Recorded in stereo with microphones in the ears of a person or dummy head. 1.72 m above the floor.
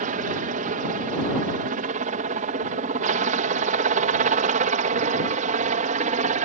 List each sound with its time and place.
0.0 s a helicopter: 45° right (ahead or behind); by 6.5 s 40° right (ahead or behind)